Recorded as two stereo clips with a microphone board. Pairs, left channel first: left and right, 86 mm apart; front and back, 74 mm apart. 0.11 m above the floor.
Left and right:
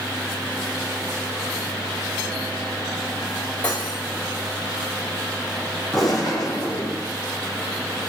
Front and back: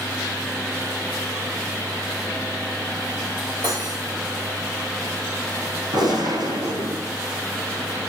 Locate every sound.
3.6 s cutlery clinking: 165° left, 5.5 m
5.9 s a gunshot: straight behind, 6.5 m